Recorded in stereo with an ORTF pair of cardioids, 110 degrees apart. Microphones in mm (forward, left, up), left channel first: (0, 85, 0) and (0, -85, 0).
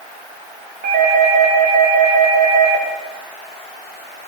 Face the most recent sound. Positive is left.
turn(degrees=-65)